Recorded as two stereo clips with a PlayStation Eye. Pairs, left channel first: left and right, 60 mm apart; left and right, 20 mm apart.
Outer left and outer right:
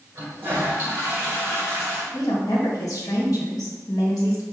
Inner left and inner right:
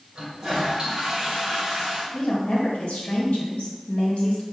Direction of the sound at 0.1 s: 35° right (ahead or behind).